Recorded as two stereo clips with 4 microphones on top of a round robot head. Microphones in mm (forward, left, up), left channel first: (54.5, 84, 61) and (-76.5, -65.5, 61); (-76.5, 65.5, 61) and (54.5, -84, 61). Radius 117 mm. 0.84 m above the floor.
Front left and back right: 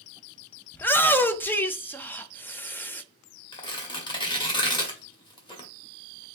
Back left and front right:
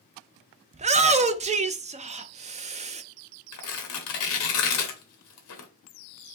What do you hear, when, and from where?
0.7 s a shout: 25° right, 0.5 m
3.5 s tearing paper: 115° left, 1.0 m